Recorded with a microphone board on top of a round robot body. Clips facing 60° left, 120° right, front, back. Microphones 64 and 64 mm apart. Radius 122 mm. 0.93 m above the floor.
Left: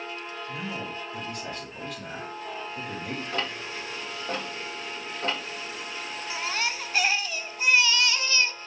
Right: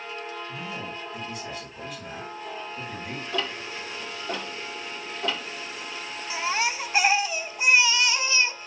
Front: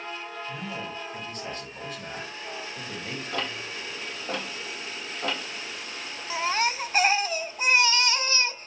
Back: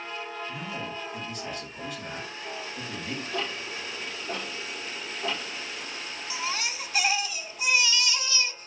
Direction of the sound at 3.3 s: 15° left.